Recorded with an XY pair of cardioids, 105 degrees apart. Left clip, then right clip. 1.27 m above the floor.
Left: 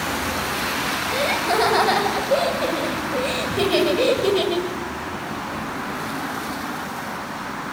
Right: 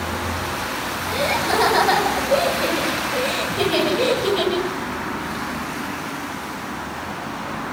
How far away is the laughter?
About 9.5 m.